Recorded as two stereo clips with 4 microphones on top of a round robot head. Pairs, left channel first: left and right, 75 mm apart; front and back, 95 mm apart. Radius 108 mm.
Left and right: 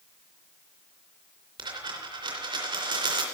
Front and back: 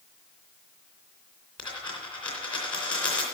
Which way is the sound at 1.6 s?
80° right.